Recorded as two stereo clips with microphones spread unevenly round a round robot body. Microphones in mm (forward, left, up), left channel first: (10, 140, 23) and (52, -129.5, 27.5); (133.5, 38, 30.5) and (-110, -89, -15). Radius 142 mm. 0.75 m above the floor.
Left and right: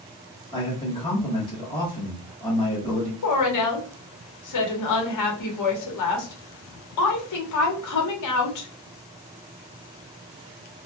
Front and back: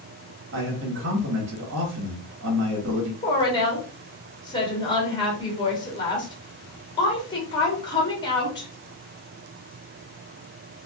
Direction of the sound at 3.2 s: 105° left.